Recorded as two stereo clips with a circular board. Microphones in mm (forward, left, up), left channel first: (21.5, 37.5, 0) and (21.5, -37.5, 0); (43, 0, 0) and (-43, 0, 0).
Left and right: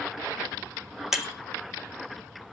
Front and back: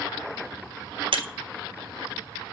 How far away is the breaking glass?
About 0.6 m.